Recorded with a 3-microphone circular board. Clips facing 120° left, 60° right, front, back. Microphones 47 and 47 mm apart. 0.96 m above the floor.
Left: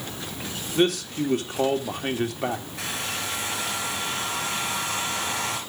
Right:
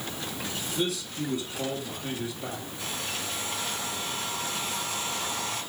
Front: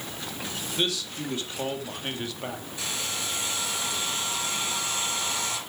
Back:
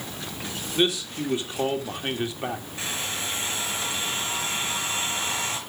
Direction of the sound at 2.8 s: 120° left.